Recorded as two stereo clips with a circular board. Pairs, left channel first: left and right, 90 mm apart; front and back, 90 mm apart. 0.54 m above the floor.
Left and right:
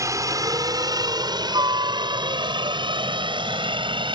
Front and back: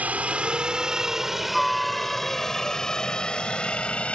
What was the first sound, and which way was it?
A helicopter, 115° right.